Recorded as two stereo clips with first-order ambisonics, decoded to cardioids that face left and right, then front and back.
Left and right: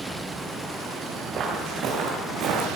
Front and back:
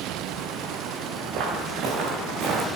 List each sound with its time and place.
1.3 s footsteps: 145° right, 2.5 m; by 2.7 s 125° right, 2 m